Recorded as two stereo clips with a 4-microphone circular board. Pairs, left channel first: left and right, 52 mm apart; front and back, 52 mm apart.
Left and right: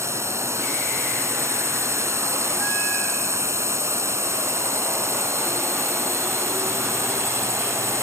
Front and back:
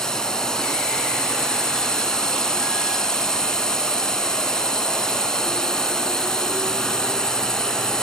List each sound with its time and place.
0.0 s a drone: 75° right